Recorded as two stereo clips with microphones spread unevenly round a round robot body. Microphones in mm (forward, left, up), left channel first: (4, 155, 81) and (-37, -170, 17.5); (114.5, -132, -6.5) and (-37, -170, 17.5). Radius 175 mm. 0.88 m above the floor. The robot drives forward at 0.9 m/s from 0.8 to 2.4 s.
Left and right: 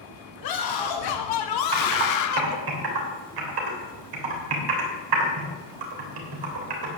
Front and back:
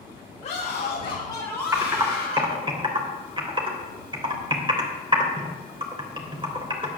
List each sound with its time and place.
0.4 s a scream: 60° left, 1.5 m; by 2.6 s 125° left, 1.5 m
1.7 s typing on a keyboard: 95° right, 3 m; by 7.0 s 105° right, 3.5 m